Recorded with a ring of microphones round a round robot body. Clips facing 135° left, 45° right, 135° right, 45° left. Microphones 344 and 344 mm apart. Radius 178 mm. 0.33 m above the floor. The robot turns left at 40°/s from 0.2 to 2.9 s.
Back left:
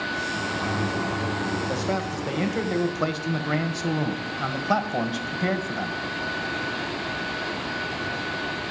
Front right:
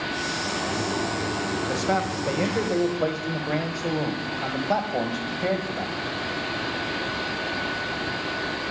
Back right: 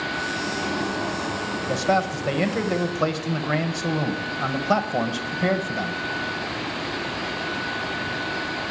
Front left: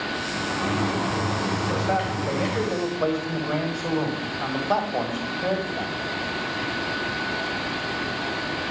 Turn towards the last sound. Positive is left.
turn(degrees=-170)